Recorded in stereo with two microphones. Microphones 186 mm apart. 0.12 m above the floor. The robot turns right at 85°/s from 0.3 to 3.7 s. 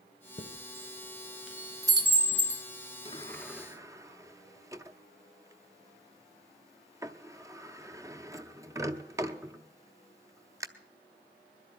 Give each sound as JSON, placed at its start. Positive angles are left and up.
{"t": 0.4, "sound": "a chime", "side_deg": 35, "distance_m": 1.2}
{"t": 3.0, "sound": "a sliding door", "side_deg": 30, "distance_m": 0.6}